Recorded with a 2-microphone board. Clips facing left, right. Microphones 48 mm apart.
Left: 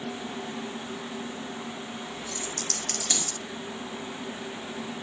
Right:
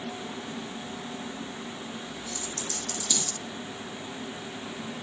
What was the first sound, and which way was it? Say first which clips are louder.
A dropped coin: left 1 dB; 70° left (ahead or behind).